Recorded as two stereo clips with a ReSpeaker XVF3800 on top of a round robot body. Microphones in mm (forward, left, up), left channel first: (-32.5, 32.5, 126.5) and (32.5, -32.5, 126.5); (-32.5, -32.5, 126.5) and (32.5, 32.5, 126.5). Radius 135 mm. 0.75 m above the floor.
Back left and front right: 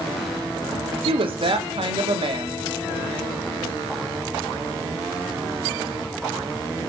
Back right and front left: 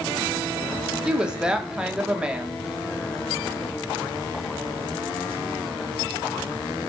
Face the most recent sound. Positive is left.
turn(degrees=-35)